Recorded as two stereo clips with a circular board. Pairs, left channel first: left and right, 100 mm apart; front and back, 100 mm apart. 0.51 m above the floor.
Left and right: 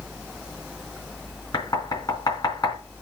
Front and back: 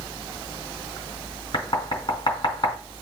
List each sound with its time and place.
1.5 s knocking: 40° left, 3.5 m